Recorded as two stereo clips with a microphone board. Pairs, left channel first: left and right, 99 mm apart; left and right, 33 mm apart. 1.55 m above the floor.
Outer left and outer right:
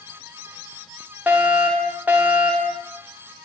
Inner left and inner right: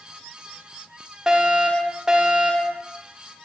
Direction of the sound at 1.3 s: 15° right (ahead or behind).